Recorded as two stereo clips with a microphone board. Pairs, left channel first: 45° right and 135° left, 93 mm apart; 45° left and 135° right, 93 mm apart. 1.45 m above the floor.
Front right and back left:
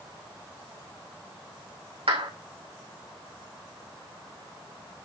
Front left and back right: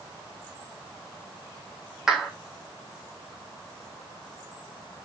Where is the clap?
140° left, 2.5 m.